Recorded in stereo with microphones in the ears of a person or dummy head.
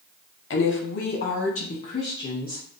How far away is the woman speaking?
About 0.9 m.